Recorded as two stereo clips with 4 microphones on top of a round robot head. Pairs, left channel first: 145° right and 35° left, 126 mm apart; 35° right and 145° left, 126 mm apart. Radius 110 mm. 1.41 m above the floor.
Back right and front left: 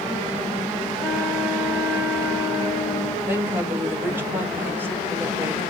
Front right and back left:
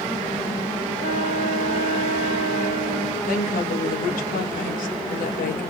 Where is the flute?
60° right, 4 m.